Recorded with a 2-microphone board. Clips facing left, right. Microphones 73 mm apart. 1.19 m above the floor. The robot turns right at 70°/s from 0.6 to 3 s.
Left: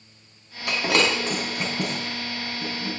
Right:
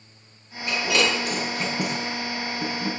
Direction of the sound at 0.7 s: 70° left (ahead or behind).